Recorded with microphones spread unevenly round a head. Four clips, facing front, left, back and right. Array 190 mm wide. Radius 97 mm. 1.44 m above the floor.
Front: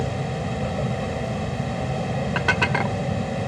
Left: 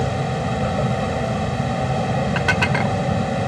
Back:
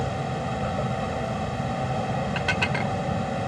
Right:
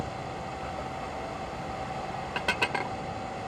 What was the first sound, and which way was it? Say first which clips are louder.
A vehicle: left 12 dB, front 1 dB; 60° left.